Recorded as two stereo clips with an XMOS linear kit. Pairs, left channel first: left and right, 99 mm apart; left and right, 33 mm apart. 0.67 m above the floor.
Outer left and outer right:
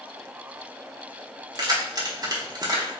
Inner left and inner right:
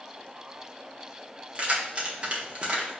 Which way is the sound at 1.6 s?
40° right (ahead or behind).